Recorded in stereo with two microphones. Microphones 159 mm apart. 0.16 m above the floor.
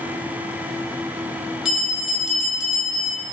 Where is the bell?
Centre (ahead or behind), 1.2 m.